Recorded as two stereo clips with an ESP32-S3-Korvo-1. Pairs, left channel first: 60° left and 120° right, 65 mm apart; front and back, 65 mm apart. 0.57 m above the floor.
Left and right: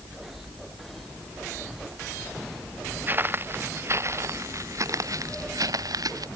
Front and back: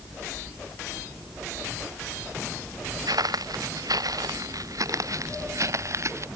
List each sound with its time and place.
3.1 s footsteps: straight behind; by 6.3 s 140° right